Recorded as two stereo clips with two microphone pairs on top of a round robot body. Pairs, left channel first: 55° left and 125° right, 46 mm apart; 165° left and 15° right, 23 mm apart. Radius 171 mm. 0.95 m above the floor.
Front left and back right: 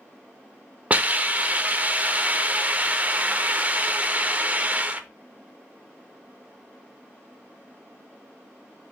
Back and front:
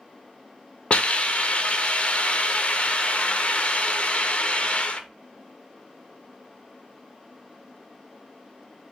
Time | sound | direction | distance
0.9 | a hiss | 165° right | 0.6 m